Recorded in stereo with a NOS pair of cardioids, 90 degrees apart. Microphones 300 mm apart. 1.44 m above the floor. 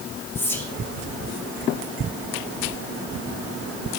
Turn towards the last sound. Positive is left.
turn(degrees=5)